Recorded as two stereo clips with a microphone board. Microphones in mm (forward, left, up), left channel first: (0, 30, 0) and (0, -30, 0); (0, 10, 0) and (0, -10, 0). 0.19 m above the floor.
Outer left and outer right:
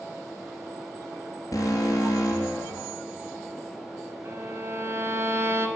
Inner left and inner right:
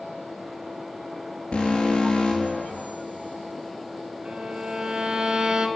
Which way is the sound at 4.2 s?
50° right (ahead or behind).